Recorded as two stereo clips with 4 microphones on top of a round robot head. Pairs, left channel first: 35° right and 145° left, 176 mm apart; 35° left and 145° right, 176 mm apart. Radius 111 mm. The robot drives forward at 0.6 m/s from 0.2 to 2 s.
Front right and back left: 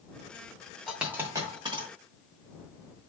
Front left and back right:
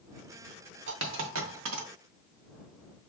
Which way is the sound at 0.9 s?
125° right.